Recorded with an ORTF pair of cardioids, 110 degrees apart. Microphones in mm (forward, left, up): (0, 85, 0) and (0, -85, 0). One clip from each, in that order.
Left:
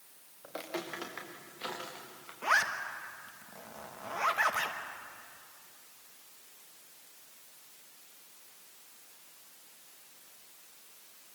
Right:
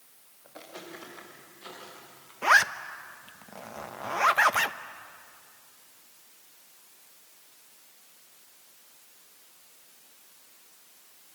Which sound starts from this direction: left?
Footsteps, at 0.4 s.